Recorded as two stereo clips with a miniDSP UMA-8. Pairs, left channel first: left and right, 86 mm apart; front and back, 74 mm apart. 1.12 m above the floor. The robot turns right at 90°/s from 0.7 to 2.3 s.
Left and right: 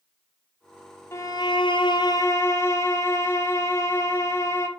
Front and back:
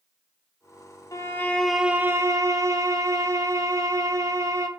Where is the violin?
35° left, 0.8 m; by 4.7 s 140° left, 0.8 m.